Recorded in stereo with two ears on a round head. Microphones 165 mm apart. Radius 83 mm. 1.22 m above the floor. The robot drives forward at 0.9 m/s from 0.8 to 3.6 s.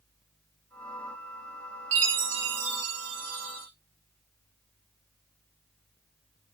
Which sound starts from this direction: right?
A chime, at 1.9 s.